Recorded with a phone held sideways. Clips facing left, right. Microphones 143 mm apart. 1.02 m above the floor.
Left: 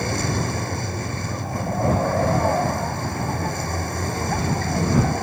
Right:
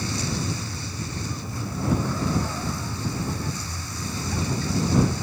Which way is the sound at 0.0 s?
60° left (ahead or behind).